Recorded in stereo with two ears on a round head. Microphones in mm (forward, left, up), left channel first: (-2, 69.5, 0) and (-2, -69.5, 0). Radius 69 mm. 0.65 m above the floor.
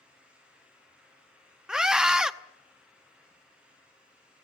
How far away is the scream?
About 0.8 m.